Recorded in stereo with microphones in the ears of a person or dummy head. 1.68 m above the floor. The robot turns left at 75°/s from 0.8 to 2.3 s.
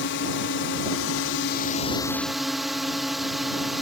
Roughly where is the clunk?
No clunk in this recording.